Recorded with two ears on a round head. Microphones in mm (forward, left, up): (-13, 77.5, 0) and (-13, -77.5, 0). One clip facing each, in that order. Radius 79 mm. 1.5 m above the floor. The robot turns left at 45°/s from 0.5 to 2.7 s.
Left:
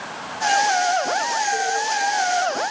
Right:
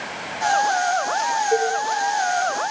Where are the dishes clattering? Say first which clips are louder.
Right 6 dB; 75° right (ahead or behind), 2.5 m; by 1.8 s 65° right (ahead or behind), 2.5 m.